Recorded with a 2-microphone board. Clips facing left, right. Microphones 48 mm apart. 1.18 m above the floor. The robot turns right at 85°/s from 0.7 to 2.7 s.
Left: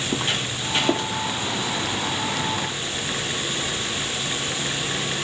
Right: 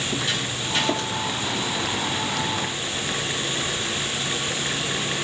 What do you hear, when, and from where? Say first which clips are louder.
0.1 s footsteps: left 1 dB; 45° left (ahead or behind), 1.7 m; by 1.1 s 30° left (ahead or behind), 1.4 m